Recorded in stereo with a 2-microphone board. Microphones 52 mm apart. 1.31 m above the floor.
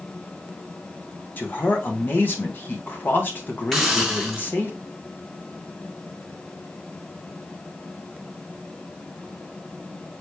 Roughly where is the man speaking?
Left.